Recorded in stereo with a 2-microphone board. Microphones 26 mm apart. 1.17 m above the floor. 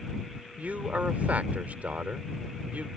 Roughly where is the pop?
No pop in this recording.